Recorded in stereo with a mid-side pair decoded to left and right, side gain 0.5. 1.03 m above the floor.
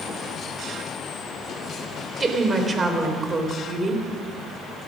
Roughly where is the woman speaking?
Ahead right.